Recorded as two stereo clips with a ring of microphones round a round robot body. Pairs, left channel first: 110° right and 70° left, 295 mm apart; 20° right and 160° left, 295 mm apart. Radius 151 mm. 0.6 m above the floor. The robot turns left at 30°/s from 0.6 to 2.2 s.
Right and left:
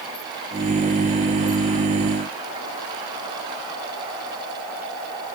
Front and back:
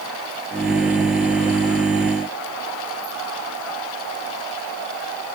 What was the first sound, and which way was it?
Only background noise.